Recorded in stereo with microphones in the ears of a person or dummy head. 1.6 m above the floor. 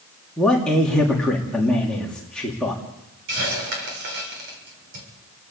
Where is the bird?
No bird in this recording.